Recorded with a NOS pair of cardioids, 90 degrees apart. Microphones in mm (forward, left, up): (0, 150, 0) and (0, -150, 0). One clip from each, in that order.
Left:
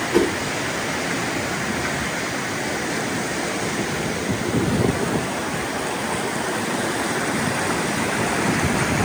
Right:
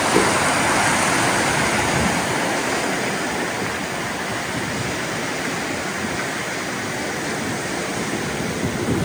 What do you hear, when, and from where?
0.1 s a whoosh: 5° right, 1.5 m